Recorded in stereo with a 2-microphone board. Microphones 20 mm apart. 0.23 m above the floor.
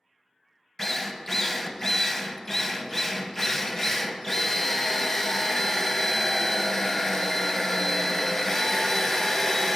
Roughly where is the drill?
Left.